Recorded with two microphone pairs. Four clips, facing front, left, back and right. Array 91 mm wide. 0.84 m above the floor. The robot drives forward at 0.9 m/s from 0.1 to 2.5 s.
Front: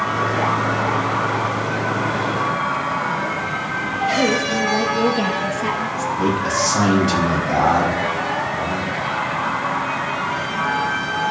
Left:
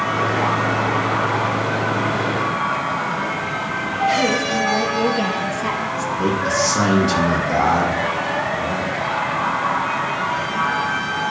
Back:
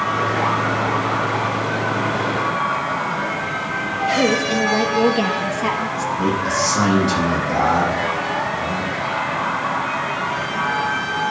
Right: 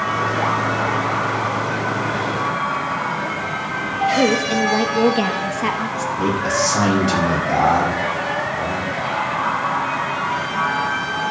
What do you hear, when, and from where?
4.2 s a woman speaking: 115° right, 1.1 m
6.2 s a man speaking: 60° right, 5 m